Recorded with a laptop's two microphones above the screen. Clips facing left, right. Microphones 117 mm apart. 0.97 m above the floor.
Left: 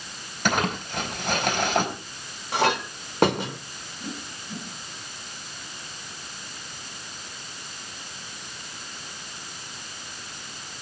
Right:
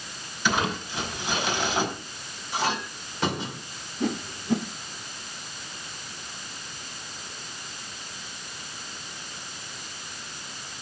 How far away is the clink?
About 1.8 m.